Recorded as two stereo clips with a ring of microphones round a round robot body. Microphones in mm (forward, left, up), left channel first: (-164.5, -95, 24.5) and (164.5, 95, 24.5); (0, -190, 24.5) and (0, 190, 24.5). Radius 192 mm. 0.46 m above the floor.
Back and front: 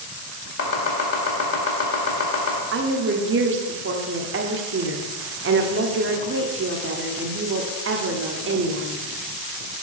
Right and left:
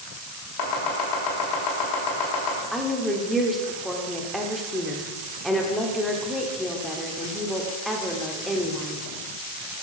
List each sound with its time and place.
0.6 s chopping: 100° right, 2 m
2.7 s a woman speaking: straight ahead, 0.9 m